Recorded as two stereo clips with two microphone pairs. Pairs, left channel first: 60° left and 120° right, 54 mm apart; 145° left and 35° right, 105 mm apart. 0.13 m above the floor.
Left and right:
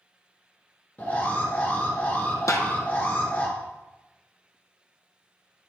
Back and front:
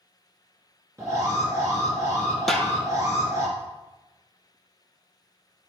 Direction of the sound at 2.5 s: 60° left.